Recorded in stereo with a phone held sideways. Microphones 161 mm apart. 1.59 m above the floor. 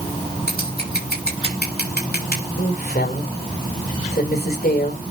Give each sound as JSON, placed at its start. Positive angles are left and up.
{"t": 0.5, "sound": "scissors", "side_deg": 80, "distance_m": 6.5}
{"t": 2.6, "sound": "a woman speaking", "side_deg": 75, "distance_m": 5.5}